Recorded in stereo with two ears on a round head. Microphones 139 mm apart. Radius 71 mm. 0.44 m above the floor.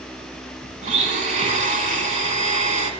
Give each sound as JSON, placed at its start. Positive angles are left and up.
{"t": 0.8, "sound": "a blender", "side_deg": -45, "distance_m": 1.2}